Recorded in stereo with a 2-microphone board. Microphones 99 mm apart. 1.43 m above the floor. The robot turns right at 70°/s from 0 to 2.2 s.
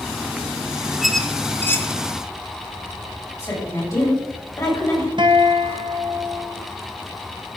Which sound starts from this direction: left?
A woman speaking, at 3.4 s.